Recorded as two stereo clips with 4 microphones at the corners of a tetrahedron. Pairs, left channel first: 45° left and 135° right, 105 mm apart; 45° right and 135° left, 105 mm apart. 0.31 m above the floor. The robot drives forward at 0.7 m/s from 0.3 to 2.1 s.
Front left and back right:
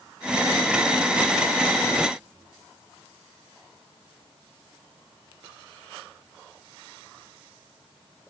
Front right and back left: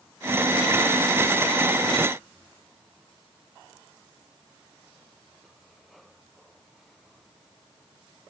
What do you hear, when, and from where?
Only background noise.